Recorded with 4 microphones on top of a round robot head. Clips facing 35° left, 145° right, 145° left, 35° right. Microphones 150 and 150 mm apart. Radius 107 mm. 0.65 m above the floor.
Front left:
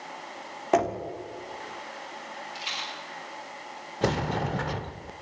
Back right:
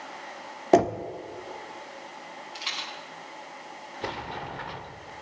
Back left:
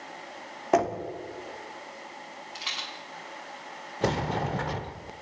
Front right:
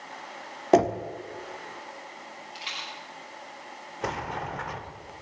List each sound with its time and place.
0.7 s knocking: 95° right, 1.6 m
2.5 s a rattle: 175° right, 7.5 m
4.0 s a sliding door: 85° left, 0.8 m